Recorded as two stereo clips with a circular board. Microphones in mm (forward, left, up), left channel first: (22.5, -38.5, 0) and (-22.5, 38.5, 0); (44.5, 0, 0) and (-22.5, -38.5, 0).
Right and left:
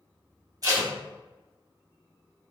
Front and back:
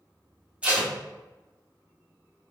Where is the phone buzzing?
I don't hear a phone buzzing.